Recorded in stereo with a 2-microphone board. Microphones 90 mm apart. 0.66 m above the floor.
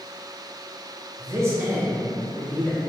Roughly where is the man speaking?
Right.